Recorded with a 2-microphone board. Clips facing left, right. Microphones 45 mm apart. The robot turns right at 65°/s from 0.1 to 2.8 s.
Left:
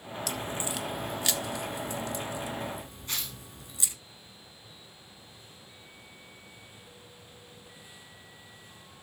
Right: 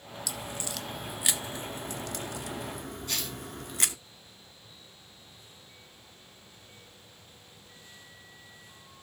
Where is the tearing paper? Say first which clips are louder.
Right 1 dB; 30° left (ahead or behind), 5 m.